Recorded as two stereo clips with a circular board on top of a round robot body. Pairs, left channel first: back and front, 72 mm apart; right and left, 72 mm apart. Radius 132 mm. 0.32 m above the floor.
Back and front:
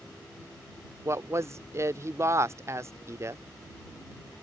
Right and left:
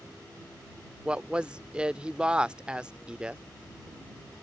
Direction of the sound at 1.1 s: 20° left.